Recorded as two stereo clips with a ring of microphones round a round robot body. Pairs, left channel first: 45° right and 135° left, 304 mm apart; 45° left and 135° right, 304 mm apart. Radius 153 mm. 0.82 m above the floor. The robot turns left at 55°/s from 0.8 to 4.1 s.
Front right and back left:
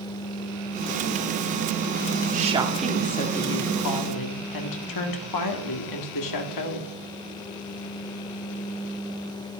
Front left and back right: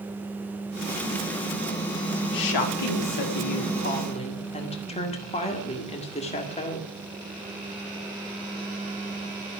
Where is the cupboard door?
No cupboard door in this recording.